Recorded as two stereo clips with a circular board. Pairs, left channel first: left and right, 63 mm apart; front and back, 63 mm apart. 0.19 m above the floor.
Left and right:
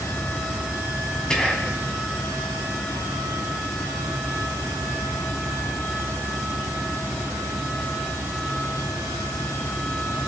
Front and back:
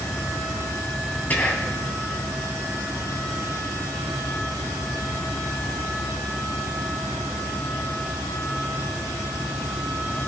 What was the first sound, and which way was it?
Whispering, 25° left.